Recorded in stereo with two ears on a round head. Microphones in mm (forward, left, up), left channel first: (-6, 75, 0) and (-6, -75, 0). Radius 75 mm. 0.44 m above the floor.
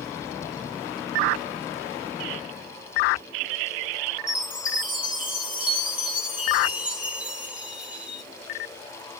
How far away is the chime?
About 1.0 m.